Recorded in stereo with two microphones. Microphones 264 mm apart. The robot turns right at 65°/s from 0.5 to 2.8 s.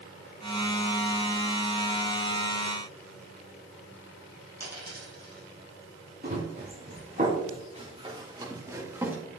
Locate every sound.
4.6 s a dropped coin: 65° right (ahead or behind), 5.5 m
6.2 s running footsteps: 45° right (ahead or behind), 5.5 m; by 9.2 s 5° right (ahead or behind), 4.5 m